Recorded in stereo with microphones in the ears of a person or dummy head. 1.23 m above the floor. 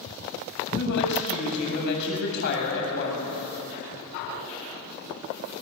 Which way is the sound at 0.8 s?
65° left (ahead or behind).